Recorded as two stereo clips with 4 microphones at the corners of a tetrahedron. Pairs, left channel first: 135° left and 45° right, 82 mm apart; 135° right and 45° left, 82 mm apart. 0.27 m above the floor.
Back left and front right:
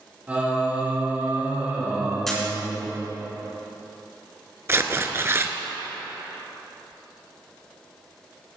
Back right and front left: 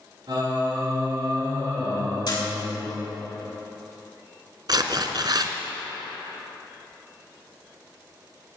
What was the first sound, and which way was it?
Singing, 25° left.